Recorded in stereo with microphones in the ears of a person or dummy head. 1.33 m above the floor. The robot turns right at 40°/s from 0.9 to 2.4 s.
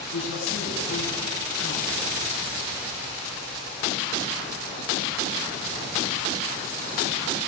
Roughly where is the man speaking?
Ahead left.